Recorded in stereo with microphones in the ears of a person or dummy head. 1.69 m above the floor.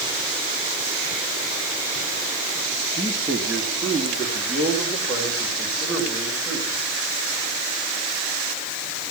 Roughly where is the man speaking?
Centre.